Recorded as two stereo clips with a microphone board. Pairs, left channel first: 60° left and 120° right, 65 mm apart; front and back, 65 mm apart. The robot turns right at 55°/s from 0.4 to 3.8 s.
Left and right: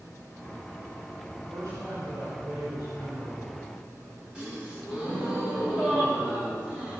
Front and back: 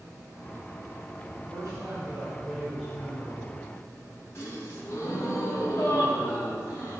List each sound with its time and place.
1.4 s a man speaking: 175° left, 5.5 m; by 3.6 s 60° right, 5.5 m
4.3 s a gasp: 50° right, 3 m